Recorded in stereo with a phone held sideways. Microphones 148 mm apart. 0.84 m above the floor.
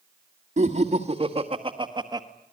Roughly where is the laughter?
Right.